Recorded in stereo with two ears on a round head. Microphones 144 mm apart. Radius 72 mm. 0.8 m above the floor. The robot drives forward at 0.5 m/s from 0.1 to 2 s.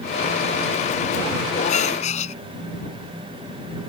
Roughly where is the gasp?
Left.